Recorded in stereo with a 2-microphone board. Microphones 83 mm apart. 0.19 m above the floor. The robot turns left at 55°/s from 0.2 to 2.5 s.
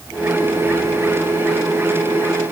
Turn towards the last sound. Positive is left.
No sound to turn to.